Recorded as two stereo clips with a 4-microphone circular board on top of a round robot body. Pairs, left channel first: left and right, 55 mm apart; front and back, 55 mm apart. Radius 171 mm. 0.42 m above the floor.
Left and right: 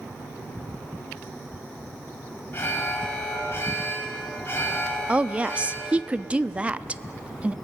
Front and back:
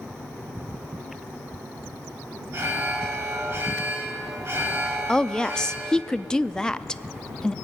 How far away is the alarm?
About 5 m.